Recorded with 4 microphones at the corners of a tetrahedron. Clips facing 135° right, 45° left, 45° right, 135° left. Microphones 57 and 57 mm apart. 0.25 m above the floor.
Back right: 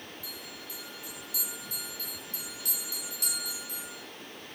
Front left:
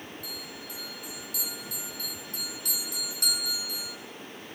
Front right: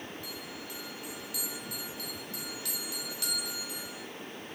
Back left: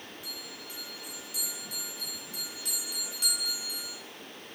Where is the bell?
70° left, 2.5 m.